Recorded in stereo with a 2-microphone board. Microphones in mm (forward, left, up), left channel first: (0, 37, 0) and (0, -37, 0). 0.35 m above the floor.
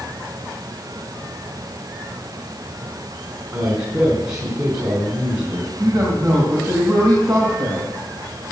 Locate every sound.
3.5 s a man speaking: 45° right (ahead or behind), 3 m
5.8 s a man speaking: 55° right (ahead or behind), 3 m